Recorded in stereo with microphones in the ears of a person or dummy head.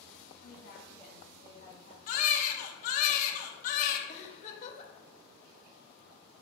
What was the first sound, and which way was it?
A woman speaking, 55° left (ahead or behind).